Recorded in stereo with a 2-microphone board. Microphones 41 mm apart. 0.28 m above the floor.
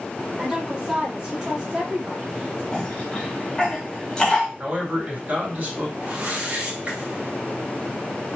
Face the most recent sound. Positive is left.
turn(degrees=-30)  # may be behind; listen again after turning